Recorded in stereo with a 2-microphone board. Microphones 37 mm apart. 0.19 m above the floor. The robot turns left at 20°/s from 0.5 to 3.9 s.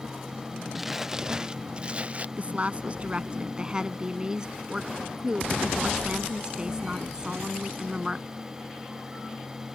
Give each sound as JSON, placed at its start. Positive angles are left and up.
{"t": 0.8, "sound": "crumpling", "azimuth_deg": -5}
{"t": 2.4, "sound": "a woman speaking", "azimuth_deg": -120}